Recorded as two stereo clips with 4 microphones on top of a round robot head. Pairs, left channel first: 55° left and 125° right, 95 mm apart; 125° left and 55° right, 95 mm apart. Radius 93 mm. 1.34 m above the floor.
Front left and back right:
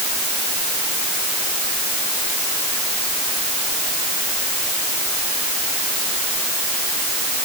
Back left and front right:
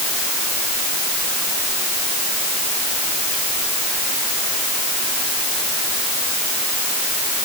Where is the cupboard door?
No cupboard door in this recording.